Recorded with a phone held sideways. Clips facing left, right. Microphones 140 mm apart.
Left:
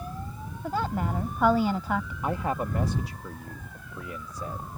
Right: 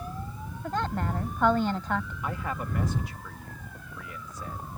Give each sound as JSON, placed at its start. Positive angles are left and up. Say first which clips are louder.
{"t": 0.6, "sound": "a woman speaking", "louder": "left 1 dB", "side_deg": 5}
{"t": 2.2, "sound": "a man speaking", "louder": "left 5 dB", "side_deg": 35}